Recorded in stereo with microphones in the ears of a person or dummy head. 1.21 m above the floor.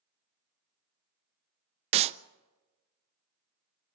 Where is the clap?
35° right (ahead or behind), 0.6 m.